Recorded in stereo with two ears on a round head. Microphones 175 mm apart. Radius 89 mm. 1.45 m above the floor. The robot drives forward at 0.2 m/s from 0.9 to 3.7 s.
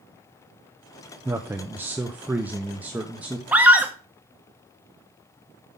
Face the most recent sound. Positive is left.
turn(degrees=-10)  # may be behind; listen again after turning